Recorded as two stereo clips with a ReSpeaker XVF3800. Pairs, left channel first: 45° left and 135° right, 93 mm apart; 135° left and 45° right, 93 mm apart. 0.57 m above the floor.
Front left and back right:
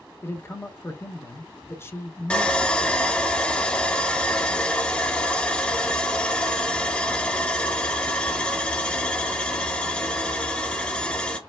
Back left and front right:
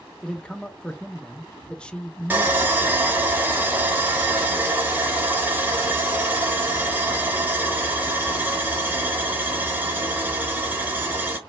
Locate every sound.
0.2 s a man speaking: 65° left, 0.6 m
2.3 s sawing: 15° right, 1.0 m